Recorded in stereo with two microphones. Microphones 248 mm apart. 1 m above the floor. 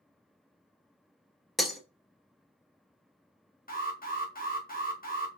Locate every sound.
1.6 s breaking glass: centre (ahead or behind), 1.0 m
3.7 s an alarm: 35° left (ahead or behind), 1.3 m